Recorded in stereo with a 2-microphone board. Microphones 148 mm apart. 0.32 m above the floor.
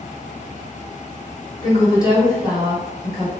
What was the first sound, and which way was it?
A woman speaking, 25° left (ahead or behind).